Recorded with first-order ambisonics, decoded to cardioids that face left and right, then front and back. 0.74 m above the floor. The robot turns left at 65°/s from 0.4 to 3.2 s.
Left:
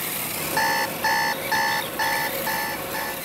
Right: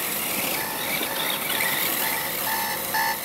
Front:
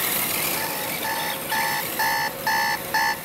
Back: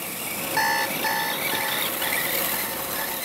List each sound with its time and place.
0.6 s an alarm clock: 135° left, 1.1 m; by 3.1 s 30° right, 1.1 m